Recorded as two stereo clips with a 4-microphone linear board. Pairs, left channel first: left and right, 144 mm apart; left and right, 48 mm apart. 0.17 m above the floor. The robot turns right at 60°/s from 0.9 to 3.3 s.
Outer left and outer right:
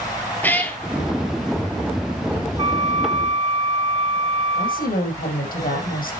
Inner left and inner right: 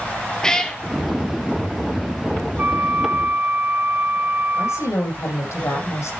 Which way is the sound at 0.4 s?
10° left (ahead or behind).